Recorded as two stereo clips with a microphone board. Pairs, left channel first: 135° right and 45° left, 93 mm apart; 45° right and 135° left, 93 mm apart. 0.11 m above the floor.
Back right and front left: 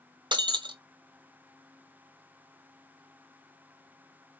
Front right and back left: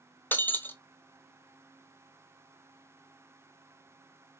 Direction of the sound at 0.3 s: 20° left.